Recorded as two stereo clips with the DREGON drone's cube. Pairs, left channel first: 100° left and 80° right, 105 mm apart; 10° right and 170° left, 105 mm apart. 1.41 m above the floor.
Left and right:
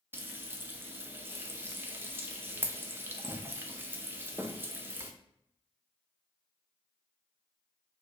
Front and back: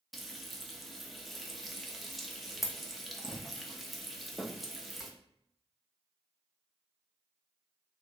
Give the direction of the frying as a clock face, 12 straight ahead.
3 o'clock.